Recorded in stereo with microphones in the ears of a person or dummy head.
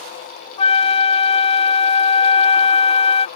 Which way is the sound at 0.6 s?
35° left (ahead or behind).